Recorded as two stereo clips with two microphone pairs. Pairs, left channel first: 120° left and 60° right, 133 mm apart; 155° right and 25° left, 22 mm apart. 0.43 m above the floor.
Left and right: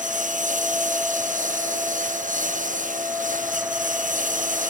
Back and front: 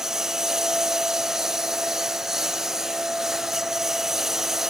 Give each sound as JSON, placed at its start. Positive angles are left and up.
{"t": 0.0, "sound": "a lawn mower", "azimuth_deg": -45}